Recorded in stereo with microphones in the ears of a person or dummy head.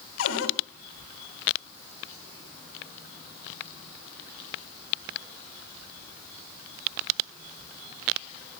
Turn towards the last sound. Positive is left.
turn(degrees=80)